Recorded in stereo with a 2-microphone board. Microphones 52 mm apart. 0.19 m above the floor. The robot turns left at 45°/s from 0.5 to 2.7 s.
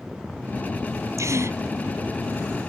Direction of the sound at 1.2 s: 75° right (ahead or behind).